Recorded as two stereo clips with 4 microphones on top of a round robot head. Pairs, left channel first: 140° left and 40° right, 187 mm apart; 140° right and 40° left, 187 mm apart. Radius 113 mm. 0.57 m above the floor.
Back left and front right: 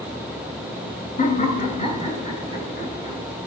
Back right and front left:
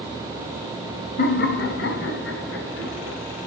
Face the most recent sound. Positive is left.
turn(degrees=-150)